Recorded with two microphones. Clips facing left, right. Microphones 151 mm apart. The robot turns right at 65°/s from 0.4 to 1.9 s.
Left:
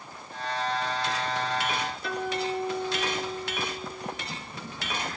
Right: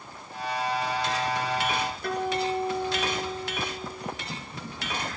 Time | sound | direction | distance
2.0 | a guitar | 55° right (ahead or behind) | 6 m